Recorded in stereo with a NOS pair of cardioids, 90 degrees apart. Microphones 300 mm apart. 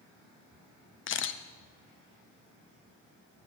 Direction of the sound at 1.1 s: 45° left.